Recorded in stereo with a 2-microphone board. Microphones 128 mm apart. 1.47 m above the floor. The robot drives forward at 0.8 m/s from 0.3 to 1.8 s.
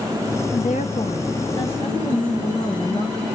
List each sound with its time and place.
0.5 s a woman speaking: 80° left, 1.1 m; by 3.2 s 40° left (ahead or behind), 1.6 m